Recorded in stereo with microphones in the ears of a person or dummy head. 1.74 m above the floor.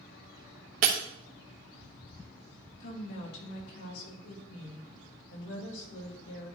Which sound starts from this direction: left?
A woman speaking, at 2.8 s.